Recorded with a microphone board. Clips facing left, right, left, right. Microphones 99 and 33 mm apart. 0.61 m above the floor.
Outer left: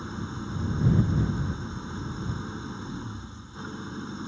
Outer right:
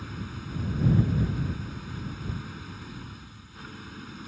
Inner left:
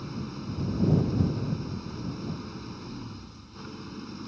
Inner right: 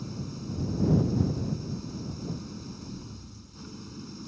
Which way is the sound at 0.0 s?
25° left (ahead or behind).